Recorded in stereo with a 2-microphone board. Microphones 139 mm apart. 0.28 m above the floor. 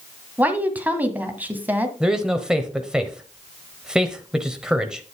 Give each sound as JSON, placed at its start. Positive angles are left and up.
{"t": 0.4, "sound": "a woman speaking", "side_deg": -15, "distance_m": 1.5}
{"t": 2.0, "sound": "a man speaking", "side_deg": -5, "distance_m": 1.0}